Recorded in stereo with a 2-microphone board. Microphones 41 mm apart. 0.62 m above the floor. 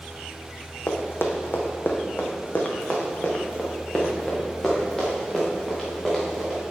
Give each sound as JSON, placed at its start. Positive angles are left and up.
{"t": 0.9, "sound": "running footsteps", "side_deg": 65, "distance_m": 1.5}